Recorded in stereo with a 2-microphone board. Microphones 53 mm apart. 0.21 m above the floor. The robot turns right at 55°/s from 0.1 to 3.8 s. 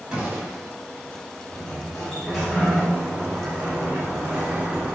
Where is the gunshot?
10° right (ahead or behind), 1.2 m; by 0.7 s 40° right (ahead or behind), 1.2 m.